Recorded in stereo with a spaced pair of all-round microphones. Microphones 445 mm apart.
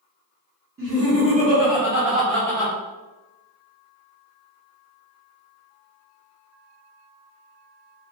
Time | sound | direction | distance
0.8 | laughter | 30° right (ahead or behind) | 1.7 m